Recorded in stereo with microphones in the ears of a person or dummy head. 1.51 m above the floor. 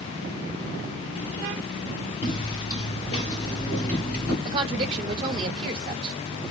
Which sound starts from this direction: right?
A woman speaking, at 4.5 s.